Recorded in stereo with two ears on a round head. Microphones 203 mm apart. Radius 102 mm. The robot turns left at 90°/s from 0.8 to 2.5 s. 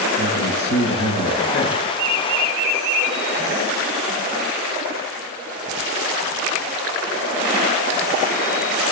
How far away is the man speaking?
About 8 m.